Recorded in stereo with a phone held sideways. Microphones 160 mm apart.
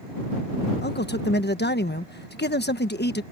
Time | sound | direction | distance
0.8 | a man speaking | 85° left | ?